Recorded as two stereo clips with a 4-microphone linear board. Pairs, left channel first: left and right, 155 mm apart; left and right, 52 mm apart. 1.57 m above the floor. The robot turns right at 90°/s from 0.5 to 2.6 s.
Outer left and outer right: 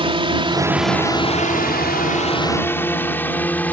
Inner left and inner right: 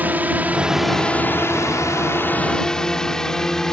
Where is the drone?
35° right (ahead or behind); by 3.7 s 10° left (ahead or behind).